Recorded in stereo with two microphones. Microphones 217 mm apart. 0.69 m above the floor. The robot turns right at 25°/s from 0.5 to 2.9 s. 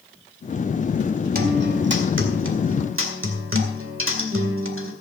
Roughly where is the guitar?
Behind right.